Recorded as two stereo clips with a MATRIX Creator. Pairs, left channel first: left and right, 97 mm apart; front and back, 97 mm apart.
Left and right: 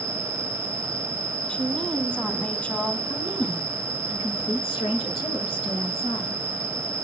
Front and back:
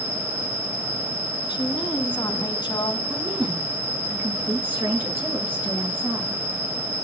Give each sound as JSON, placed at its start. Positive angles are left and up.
{"t": 0.0, "sound": "an insect", "azimuth_deg": 110, "distance_m": 5.0}
{"t": 1.5, "sound": "a woman speaking", "azimuth_deg": 20, "distance_m": 1.4}
{"t": 3.1, "sound": "a woman speaking", "azimuth_deg": 105, "distance_m": 6.5}